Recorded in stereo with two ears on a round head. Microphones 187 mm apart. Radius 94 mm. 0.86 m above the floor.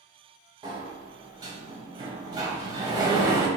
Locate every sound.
0.6 s a sliding door: 20° right (ahead or behind), 0.7 m